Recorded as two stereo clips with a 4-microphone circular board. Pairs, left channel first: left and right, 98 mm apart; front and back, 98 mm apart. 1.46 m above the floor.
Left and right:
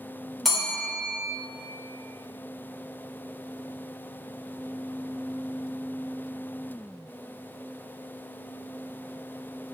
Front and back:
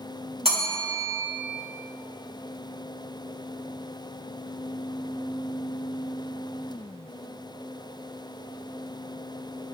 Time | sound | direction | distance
0.5 | a bell | straight behind | 1.0 m